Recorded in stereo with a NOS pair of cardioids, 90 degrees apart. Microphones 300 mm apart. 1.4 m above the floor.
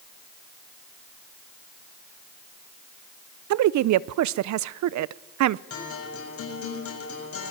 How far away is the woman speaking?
About 0.8 m.